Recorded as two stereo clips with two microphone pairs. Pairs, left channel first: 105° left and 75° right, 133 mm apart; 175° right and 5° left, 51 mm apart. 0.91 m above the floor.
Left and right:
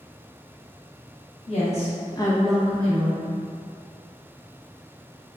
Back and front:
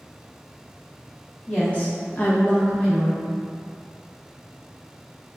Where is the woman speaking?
115° left, 1.1 m; by 3.3 s 95° right, 0.9 m.